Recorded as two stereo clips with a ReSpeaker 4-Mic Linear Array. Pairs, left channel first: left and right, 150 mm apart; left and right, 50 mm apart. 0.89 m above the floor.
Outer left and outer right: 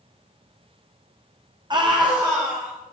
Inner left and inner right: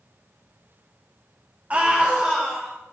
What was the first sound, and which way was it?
A scream, 30° right (ahead or behind).